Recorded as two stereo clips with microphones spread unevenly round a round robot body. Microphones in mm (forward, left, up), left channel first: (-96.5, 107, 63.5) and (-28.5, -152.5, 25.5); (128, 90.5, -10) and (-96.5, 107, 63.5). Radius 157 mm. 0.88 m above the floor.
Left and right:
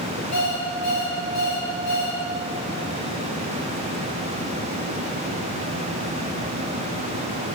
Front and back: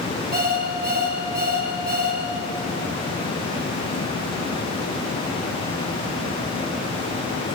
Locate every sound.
0.3 s an alarm clock: 125° left, 10 m